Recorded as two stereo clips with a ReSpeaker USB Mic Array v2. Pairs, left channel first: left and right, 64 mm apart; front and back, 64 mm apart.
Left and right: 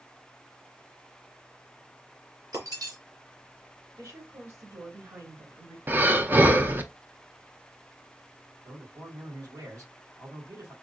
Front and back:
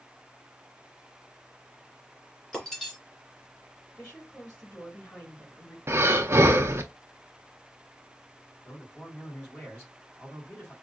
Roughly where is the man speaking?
Right.